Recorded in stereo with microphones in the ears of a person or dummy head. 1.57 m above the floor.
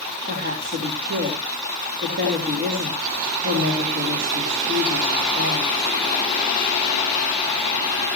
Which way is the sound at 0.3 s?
45° right (ahead or behind).